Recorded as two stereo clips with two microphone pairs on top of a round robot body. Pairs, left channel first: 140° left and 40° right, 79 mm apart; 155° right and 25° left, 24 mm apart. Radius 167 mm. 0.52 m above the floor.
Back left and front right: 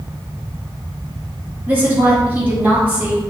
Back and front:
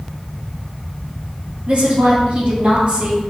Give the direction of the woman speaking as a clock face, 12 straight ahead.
11 o'clock.